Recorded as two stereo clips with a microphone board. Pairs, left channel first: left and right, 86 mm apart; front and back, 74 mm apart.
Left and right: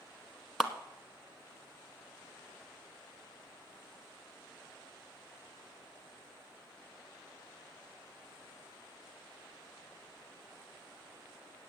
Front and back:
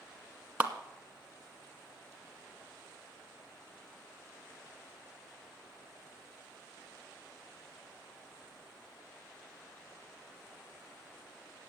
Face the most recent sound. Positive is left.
turn(degrees=-175)